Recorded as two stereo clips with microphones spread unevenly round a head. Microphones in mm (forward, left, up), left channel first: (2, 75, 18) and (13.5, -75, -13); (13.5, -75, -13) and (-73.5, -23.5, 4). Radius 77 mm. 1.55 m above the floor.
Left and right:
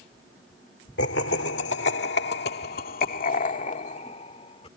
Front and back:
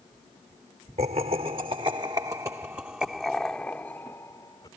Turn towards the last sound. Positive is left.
turn(degrees=40)